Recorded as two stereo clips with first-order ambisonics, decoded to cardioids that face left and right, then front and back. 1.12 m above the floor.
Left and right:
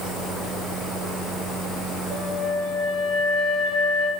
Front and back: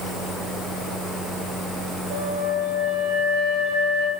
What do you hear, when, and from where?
2.1 s a flute: 155° right, 3 m